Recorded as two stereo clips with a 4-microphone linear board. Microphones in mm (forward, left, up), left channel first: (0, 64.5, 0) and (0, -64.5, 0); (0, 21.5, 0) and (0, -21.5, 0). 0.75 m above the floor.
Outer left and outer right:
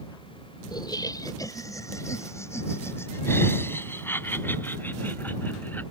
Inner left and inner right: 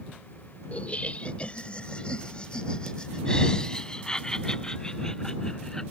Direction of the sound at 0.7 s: 35° left (ahead or behind).